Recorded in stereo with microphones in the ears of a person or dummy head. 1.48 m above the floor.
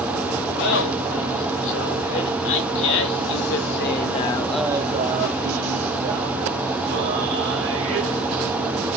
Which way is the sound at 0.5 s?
85° left.